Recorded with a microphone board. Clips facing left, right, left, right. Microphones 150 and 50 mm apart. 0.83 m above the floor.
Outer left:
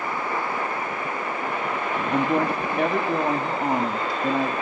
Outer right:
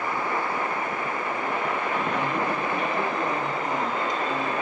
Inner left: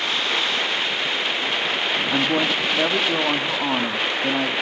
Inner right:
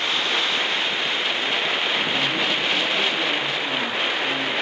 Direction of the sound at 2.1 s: 60° left (ahead or behind).